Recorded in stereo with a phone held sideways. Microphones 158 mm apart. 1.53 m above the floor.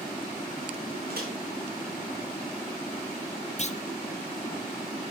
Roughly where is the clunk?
Left.